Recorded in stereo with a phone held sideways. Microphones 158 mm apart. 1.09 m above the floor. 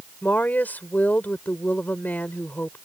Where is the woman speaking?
10° left (ahead or behind).